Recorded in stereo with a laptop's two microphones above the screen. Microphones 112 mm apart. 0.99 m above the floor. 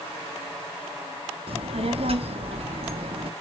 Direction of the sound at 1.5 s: 60° right (ahead or behind).